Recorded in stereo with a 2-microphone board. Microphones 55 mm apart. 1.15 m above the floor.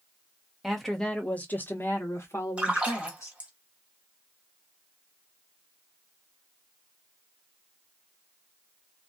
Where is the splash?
20° right (ahead or behind), 0.9 m.